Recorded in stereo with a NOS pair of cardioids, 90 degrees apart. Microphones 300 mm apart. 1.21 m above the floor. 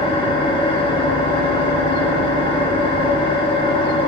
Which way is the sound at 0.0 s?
15° left.